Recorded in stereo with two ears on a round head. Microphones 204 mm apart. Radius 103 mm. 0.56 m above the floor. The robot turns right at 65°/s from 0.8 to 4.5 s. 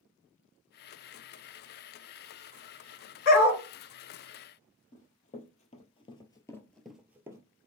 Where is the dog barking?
50° left (ahead or behind), 2.0 m; by 3.6 s 75° left (ahead or behind), 2.0 m.